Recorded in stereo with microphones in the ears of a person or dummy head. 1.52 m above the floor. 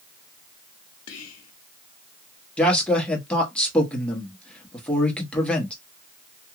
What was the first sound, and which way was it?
Whispering, 80° left.